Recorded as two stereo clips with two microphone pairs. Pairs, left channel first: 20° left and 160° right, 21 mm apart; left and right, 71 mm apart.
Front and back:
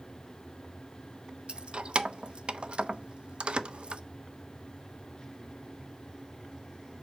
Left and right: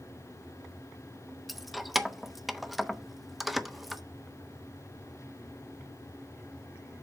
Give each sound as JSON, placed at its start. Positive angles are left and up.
{"t": 1.5, "sound": "keys jangling", "azimuth_deg": 180, "distance_m": 0.6}